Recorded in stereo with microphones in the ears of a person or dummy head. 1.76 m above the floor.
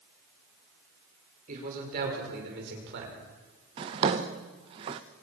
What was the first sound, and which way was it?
A man speaking, 45° right (ahead or behind).